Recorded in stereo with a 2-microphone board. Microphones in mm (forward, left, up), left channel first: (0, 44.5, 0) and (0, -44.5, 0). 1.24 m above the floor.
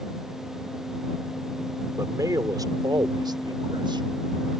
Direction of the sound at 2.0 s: 40° right (ahead or behind).